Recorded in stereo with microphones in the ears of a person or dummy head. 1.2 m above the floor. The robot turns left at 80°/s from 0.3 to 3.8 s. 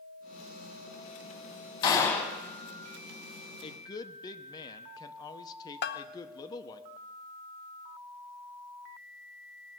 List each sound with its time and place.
1.8 s a gunshot: 40° left, 1.7 m; by 2.4 s straight ahead, 1.7 m
3.6 s a woman speaking: 35° left (ahead or behind), 0.7 m; by 6.8 s 25° left (ahead or behind), 0.7 m
5.8 s a bell: 50° left (ahead or behind), 0.5 m